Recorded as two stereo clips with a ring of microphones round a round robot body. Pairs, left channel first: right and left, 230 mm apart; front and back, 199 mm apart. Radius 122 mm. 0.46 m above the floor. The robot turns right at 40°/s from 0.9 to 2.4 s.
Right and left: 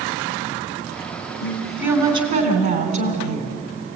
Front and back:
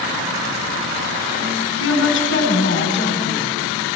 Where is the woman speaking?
Straight ahead, 3.5 m; by 3.6 s 40° left, 3.5 m.